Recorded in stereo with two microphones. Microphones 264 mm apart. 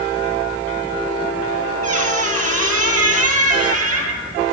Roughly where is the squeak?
Right.